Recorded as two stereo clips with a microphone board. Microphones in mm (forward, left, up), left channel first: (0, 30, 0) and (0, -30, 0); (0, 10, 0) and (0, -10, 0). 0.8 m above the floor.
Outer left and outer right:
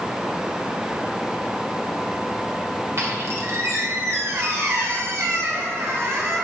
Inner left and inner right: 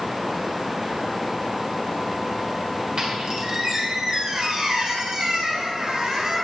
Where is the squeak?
45° right (ahead or behind), 2 m.